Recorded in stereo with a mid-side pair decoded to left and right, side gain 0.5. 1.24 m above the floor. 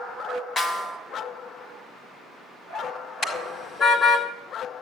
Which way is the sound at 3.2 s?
50° left.